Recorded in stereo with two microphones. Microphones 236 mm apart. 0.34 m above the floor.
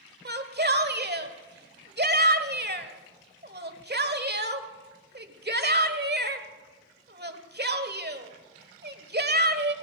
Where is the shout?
45° right (ahead or behind), 1.3 m.